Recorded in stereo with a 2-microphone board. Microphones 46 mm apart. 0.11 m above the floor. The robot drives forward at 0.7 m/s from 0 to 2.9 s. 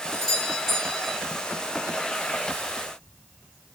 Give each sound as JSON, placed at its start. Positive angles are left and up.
{"t": 0.1, "sound": "a doorbell", "side_deg": 10, "distance_m": 3.0}